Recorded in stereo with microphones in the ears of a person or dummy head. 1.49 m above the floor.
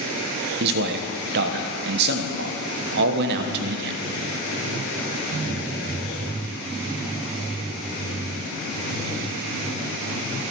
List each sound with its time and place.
0.6 s a man speaking: 55° right (ahead or behind), 1.0 m